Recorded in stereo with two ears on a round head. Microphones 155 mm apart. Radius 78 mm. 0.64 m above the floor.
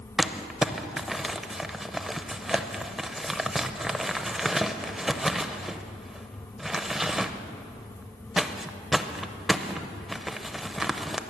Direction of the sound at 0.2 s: Centre (ahead or behind).